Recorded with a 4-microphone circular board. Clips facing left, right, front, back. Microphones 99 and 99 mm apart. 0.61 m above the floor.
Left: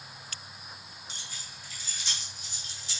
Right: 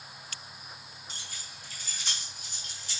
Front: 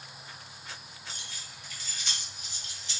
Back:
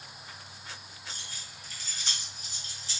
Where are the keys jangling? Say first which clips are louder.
Right 1 dB, even; 130° right, 2.5 m.